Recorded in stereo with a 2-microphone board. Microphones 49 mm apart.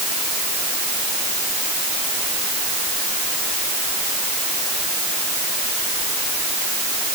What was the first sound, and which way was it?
Only background noise.